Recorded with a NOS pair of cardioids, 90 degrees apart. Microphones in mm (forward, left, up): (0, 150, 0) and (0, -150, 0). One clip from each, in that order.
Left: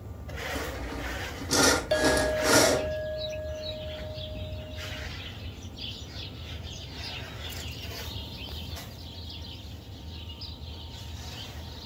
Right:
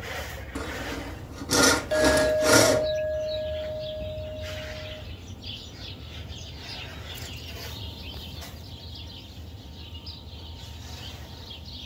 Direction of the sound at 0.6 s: 20° right.